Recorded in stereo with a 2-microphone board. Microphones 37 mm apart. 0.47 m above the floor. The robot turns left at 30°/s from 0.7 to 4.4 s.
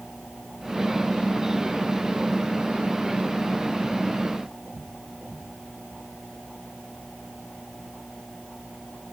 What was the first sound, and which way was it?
Only background noise.